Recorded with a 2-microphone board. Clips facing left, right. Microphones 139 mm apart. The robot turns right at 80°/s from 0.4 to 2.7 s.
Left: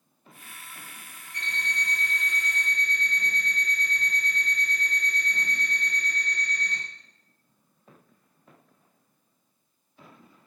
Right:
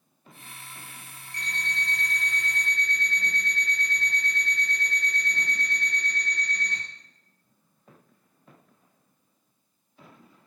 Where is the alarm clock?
175° left, 1.3 m; by 6.8 s 75° right, 1.3 m.